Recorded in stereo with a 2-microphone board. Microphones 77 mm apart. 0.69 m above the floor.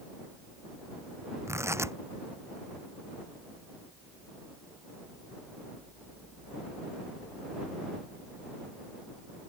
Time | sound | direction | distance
1.5 | tearing paper | 35° right (ahead or behind) | ?